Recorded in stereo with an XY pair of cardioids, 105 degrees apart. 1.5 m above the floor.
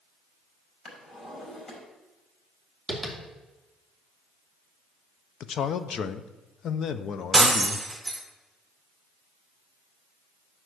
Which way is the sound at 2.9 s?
20° left.